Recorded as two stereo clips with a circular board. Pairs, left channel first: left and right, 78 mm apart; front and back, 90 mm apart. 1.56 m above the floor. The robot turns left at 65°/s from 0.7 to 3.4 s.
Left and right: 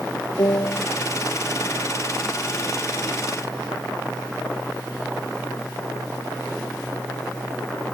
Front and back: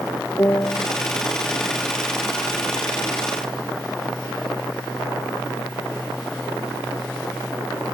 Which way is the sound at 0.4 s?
60° left.